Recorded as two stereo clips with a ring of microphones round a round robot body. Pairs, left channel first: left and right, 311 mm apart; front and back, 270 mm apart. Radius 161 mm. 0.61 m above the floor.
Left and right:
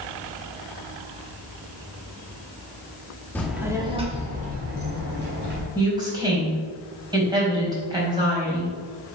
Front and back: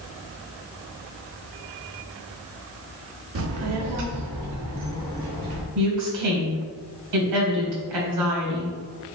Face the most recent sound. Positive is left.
turn(degrees=-165)